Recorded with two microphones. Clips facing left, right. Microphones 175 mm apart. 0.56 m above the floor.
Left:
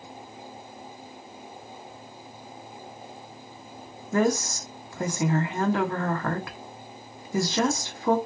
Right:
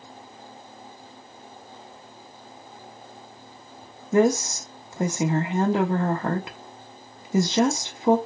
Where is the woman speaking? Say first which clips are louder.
Right 4 dB; 20° right (ahead or behind), 0.9 m.